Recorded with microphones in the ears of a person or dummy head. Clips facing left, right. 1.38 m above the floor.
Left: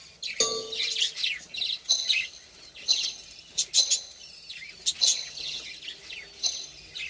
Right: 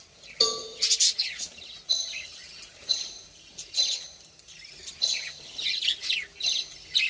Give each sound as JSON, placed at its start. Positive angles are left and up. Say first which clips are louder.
{"t": 0.4, "sound": "a cowbell", "louder": "left 1 dB", "side_deg": 45, "distance_m": 2.5}
{"t": 1.9, "sound": "a rattle", "louder": "left 3 dB", "side_deg": 65, "distance_m": 6.0}